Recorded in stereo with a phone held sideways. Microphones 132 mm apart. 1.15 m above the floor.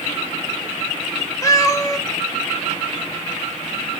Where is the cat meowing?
25° left (ahead or behind), 0.9 m.